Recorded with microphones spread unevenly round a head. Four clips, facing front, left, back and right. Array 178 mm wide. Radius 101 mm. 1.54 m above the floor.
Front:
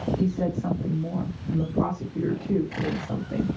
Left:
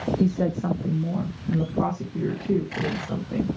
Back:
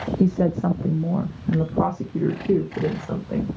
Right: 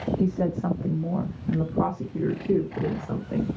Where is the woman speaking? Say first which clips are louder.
Left 2 dB, back 5 dB; 145° left, 0.9 m; by 3.5 s 175° right, 2.5 m.